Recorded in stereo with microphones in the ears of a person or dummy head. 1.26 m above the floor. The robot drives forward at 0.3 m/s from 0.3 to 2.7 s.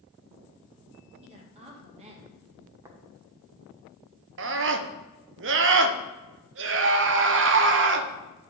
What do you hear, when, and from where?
1.2 s a woman speaking: 30° right (ahead or behind), 2 m; by 2.4 s 35° right (ahead or behind), 1.8 m
2.8 s tapping: 15° right (ahead or behind), 1.1 m
4.4 s a scream: 55° right (ahead or behind), 0.8 m